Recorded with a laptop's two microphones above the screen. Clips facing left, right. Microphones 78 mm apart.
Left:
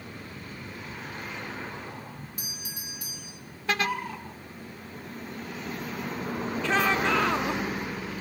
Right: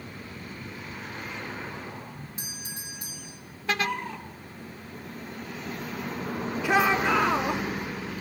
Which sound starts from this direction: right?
A doorbell, at 2.4 s.